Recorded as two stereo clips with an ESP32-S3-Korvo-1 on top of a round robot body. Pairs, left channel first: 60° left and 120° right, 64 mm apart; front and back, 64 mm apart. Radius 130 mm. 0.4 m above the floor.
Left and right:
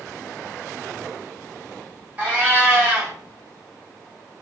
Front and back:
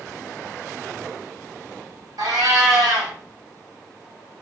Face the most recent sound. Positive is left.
turn(degrees=175)